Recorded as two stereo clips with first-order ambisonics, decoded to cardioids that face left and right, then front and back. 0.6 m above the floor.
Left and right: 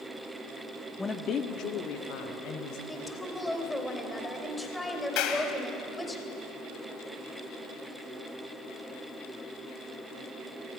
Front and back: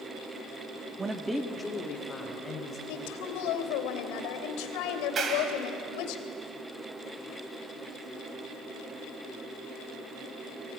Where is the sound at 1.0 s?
155° left, 0.9 m; by 2.8 s 70° left, 3 m.